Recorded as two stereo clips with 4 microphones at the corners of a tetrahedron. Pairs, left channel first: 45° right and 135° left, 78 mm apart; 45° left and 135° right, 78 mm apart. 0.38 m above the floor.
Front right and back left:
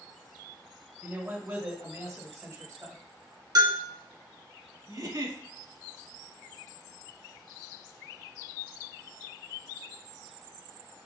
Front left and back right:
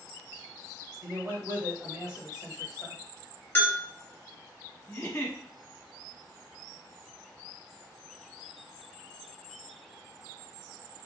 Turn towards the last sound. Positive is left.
turn(degrees=110)